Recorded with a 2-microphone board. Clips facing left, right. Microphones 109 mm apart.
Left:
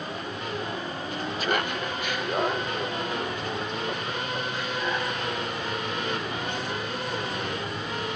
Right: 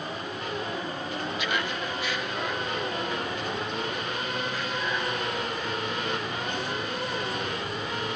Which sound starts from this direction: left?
Laughter, at 1.4 s.